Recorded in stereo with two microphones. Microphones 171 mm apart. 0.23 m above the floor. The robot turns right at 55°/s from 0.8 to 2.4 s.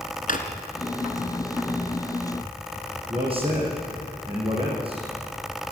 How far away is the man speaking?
About 8.5 m.